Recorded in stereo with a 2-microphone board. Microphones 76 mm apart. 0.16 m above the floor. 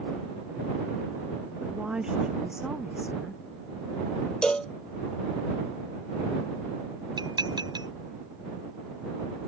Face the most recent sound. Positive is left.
turn(degrees=-65)  # may be behind; listen again after turning